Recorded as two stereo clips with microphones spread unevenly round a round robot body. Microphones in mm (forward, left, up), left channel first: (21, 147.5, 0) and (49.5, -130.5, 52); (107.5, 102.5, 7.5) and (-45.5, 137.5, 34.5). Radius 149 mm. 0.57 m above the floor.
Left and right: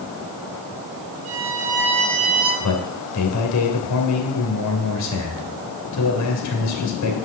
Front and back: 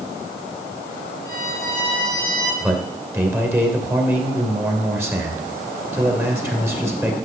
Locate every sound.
1.2 s a violin: 50° right, 5.5 m
2.6 s a man speaking: 90° left, 2.5 m